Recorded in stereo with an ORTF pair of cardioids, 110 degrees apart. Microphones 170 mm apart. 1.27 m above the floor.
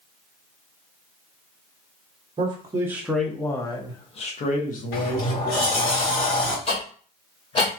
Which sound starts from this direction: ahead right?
A man speaking, at 2.4 s.